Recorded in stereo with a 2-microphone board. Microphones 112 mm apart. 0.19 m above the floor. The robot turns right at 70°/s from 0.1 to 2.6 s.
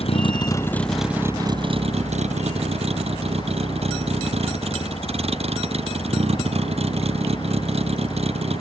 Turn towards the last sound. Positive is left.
turn(degrees=-65)